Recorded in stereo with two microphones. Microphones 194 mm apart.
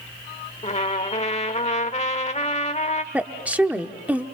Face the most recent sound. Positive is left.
turn(degrees=-5)  # may be behind; listen again after turning